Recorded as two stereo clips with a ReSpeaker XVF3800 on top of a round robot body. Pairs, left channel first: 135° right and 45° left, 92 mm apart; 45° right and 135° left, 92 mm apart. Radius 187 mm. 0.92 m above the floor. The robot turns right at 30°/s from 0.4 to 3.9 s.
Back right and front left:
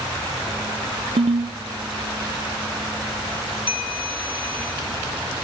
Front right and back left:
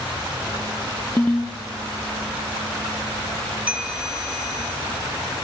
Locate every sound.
1.2 s a ringtone: 25° left, 0.7 m; by 1.6 s 40° left, 0.7 m
3.7 s a bell: 150° right, 2.5 m; by 4.7 s 145° right, 2.5 m